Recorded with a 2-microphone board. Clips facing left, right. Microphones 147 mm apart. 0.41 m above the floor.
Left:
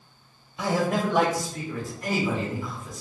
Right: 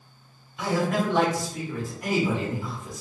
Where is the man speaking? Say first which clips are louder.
Even; 20° left (ahead or behind), 1.3 m; by 3.0 s 35° right (ahead or behind), 1.4 m.